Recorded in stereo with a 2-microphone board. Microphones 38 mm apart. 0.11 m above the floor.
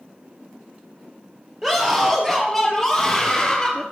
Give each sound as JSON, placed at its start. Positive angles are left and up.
{"t": 1.6, "sound": "a scream", "side_deg": -10, "distance_m": 3.0}